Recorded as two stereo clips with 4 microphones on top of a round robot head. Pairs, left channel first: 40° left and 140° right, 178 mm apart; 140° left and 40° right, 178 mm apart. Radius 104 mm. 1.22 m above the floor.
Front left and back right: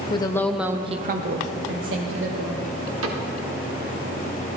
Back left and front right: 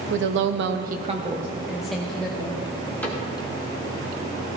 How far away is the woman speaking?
About 1.0 m.